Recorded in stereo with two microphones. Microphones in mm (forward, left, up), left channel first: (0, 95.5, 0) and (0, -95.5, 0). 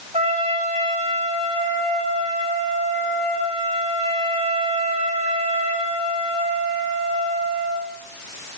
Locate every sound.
0.1 s a trumpet: 30° right (ahead or behind), 9.5 m